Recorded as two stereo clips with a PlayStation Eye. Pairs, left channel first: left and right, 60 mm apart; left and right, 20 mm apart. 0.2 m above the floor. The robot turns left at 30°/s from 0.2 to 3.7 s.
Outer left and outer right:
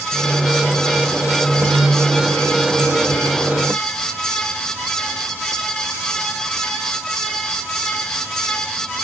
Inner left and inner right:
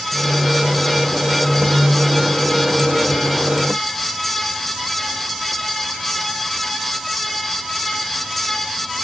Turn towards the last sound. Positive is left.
No sound to turn to.